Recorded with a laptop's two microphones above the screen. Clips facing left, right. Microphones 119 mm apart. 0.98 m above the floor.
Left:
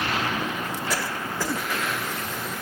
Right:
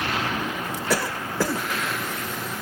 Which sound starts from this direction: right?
A cough, at 0.9 s.